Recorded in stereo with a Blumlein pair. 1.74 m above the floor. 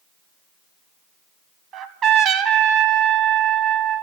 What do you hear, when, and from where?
1.7 s a trumpet: 30° right, 0.7 m